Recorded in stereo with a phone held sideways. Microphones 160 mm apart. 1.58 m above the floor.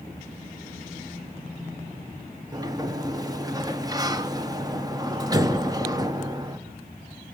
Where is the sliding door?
25° right (ahead or behind), 1.0 m.